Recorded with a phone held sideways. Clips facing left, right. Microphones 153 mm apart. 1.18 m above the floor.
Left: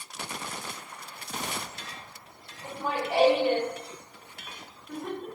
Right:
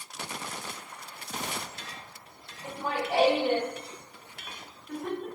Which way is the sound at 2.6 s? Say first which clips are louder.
Left 1 dB; 5° right (ahead or behind).